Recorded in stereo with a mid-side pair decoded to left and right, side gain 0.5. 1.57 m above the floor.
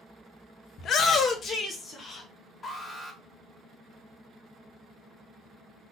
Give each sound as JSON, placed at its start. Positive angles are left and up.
{"t": 0.8, "sound": "a shout", "azimuth_deg": 60, "distance_m": 0.6}
{"t": 2.6, "sound": "an alarm", "azimuth_deg": 30, "distance_m": 1.2}